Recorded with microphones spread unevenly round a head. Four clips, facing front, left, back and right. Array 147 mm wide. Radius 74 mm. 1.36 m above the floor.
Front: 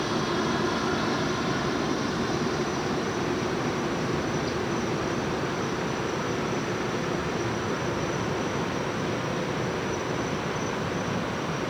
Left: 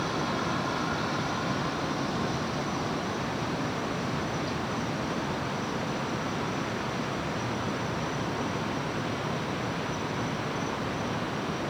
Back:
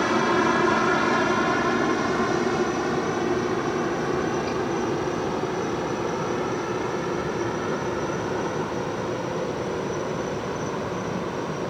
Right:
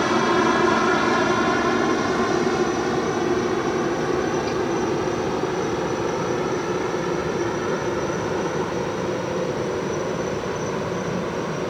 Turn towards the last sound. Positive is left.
turn(degrees=-90)